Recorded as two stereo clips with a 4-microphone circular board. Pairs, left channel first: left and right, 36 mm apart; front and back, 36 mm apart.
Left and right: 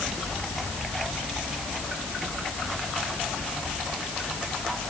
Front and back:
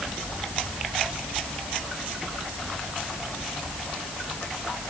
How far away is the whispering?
No whispering in this recording.